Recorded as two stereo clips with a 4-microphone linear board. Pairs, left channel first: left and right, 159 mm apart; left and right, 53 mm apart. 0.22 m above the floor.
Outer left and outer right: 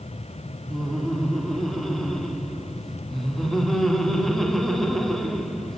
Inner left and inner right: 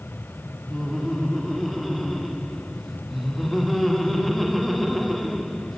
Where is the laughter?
Centre (ahead or behind), 1.8 m.